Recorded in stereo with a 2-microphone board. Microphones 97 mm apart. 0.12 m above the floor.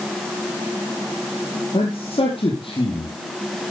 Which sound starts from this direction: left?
A man speaking, at 1.7 s.